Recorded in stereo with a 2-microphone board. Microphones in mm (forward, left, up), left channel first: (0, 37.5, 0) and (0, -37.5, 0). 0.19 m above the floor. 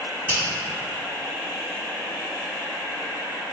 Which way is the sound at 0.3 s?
20° left (ahead or behind).